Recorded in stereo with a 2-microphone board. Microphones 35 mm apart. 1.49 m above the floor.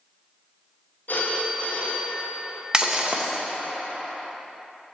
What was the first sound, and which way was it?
A phone ringing, 55° left (ahead or behind).